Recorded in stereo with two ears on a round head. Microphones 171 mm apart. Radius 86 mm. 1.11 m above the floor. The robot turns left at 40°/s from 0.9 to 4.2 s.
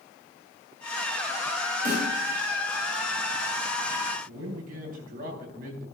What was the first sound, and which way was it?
A snare drum, 45° right (ahead or behind).